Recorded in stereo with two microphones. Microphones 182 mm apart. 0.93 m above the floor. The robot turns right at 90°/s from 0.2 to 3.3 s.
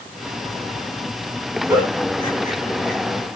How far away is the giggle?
About 9 m.